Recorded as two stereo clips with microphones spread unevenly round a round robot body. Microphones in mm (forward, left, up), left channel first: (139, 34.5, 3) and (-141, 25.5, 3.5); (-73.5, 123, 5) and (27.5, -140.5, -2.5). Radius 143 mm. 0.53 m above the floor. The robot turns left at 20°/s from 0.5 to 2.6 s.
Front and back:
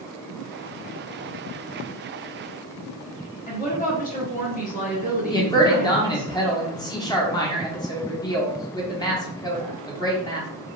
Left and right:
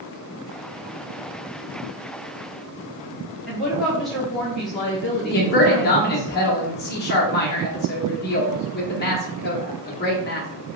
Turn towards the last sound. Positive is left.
turn(degrees=70)